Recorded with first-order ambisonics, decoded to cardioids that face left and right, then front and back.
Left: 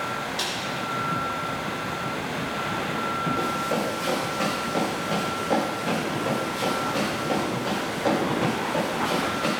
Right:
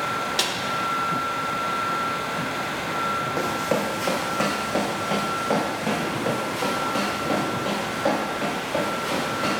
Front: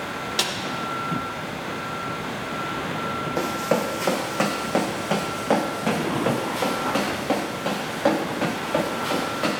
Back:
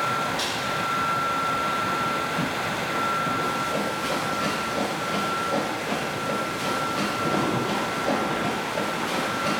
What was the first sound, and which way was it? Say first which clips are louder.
A snare drum: right 5 dB, front 3 dB; 35° right.